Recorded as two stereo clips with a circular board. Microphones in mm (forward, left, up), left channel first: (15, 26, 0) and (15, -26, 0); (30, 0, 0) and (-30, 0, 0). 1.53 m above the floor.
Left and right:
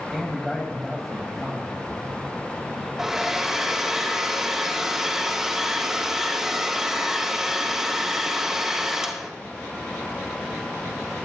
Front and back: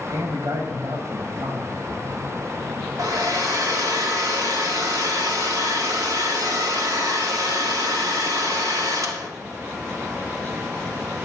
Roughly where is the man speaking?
Behind.